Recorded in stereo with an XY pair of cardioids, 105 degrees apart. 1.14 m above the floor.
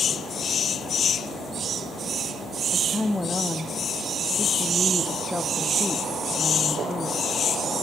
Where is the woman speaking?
15° left, 1.5 m.